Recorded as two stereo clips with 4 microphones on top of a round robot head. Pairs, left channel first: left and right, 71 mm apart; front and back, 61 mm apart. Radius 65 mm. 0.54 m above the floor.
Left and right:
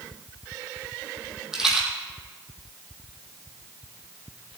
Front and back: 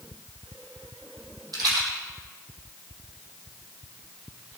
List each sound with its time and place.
1.5 s a rattle: 170° right, 4.5 m